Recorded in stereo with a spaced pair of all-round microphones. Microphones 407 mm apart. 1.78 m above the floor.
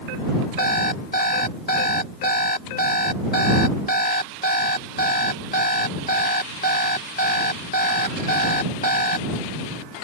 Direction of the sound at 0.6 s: 20° left (ahead or behind).